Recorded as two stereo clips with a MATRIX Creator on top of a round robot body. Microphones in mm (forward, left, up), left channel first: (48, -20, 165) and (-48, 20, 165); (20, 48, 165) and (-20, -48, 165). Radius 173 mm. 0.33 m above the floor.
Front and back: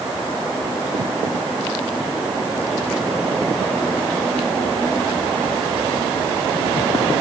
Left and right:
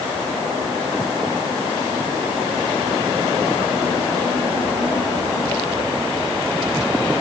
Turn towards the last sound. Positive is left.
No sound to turn to.